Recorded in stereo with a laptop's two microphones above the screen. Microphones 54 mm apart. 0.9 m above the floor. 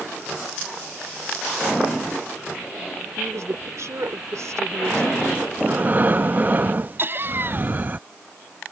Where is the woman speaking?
75° right (ahead or behind).